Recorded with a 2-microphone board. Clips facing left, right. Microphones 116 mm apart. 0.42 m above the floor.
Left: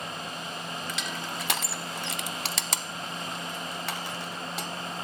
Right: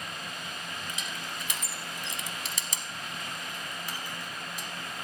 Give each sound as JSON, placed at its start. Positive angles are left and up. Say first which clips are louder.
{"t": 0.9, "sound": "crushing", "louder": "left 4 dB", "side_deg": 70, "distance_m": 0.5}